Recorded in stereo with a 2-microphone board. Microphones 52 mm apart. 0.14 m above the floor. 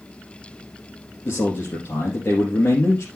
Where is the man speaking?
60° left (ahead or behind), 3 m.